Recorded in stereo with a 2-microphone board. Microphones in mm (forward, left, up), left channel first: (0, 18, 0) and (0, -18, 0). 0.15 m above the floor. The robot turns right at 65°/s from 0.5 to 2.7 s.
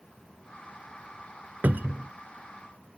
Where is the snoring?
No snoring in this recording.